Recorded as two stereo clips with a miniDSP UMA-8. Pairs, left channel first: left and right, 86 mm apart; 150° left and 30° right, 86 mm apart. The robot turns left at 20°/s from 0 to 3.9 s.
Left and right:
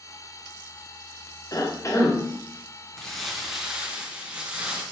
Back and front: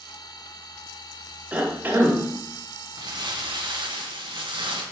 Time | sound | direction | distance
1.5 | a cough | 45° left | 1.3 m
3.0 | crumpling | 5° left | 1.5 m